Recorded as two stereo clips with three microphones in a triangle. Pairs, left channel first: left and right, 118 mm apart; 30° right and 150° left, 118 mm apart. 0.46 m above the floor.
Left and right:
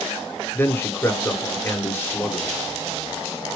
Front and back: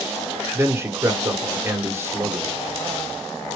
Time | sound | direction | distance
0.5 | a man speaking | 125° left | 1.1 m